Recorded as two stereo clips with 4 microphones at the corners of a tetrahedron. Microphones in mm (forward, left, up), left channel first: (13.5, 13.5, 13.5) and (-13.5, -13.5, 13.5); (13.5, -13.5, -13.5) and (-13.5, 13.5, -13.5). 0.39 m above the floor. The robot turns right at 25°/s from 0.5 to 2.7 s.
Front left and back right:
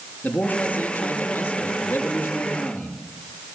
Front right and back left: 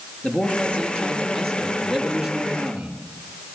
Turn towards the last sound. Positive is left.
turn(degrees=65)